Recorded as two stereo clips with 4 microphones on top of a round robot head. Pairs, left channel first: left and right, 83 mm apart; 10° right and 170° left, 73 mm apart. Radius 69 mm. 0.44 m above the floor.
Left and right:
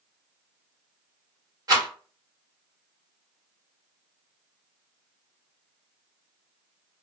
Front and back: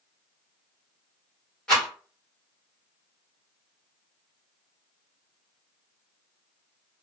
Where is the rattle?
80° right, 1.7 m.